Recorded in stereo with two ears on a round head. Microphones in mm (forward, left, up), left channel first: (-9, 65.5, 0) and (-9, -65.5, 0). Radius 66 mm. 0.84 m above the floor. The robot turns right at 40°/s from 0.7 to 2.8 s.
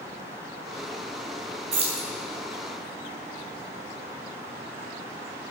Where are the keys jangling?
45° right (ahead or behind), 3 m; by 2.1 s 30° right (ahead or behind), 3 m.